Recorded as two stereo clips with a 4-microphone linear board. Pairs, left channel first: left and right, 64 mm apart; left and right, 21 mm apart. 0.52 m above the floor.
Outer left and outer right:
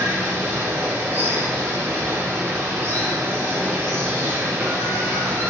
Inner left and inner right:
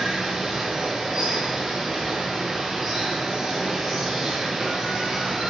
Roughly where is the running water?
Right.